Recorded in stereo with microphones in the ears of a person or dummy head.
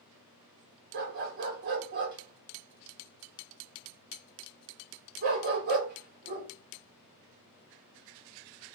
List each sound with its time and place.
0.9 s a dog barking: 50° right (ahead or behind), 1.2 m